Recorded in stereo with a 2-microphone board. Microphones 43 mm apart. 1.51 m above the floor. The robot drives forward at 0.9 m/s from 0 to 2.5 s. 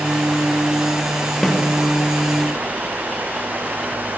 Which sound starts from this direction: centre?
A snare drum, at 1.4 s.